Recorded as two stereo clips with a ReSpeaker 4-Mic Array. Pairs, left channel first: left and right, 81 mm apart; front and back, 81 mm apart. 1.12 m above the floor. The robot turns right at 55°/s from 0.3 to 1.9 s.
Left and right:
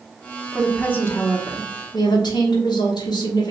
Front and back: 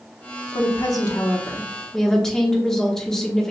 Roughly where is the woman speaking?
Ahead.